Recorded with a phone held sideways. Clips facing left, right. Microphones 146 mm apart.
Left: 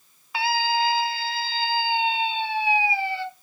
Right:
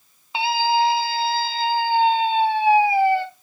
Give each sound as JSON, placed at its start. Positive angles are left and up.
{"t": 0.3, "sound": "a scream", "side_deg": -25, "distance_m": 2.5}